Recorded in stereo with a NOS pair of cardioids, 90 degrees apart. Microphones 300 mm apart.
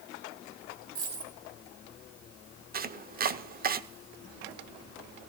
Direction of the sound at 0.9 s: 65° right.